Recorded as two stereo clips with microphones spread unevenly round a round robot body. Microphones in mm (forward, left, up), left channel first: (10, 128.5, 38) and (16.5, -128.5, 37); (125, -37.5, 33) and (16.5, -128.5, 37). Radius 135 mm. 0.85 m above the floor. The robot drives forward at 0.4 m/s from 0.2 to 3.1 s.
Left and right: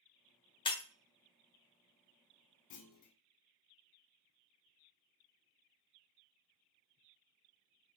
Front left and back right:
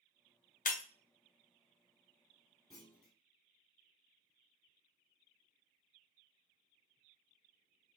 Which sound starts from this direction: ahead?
Breaking glass, at 0.7 s.